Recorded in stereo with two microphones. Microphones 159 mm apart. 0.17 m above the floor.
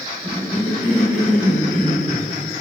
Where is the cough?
15° right (ahead or behind), 1.9 m.